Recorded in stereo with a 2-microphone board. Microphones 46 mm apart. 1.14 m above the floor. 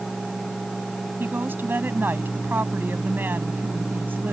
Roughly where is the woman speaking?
Right.